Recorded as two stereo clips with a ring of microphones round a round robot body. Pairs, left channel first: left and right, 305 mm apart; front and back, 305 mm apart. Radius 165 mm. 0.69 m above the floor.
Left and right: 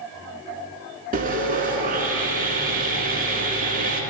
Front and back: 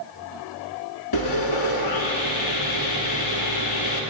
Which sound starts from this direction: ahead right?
Sawing, at 1.1 s.